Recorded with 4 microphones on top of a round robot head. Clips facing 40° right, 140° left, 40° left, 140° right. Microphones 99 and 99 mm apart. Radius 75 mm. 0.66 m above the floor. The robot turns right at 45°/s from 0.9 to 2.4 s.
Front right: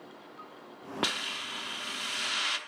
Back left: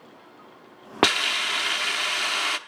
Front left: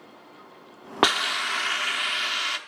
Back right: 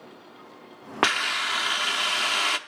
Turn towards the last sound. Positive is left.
turn(degrees=180)